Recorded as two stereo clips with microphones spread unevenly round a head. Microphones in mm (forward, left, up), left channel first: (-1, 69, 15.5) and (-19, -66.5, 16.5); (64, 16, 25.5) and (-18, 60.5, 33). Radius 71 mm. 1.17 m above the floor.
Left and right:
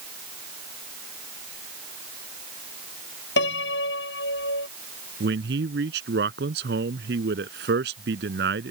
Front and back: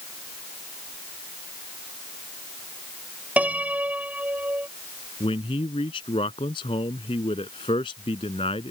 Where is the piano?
80° left.